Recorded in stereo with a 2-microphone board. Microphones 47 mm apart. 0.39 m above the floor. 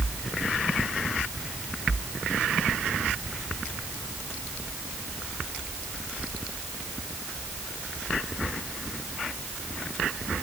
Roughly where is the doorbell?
I don't hear a doorbell.